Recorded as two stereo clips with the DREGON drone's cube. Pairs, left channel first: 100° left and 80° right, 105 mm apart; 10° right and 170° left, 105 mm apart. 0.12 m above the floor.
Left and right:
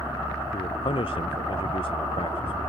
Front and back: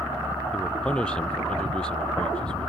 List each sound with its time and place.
0.5 s a man speaking: 70° left